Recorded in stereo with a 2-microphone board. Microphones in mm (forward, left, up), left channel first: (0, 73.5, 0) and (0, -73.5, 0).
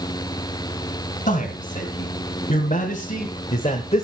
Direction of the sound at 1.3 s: 60° left (ahead or behind).